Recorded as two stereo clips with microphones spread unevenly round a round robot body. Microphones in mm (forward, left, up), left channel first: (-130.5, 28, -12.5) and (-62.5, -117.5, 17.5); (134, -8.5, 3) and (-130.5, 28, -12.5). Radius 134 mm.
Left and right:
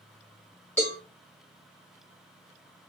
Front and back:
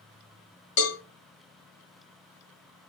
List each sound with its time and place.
0.8 s a cowbell: 35° left, 2.5 m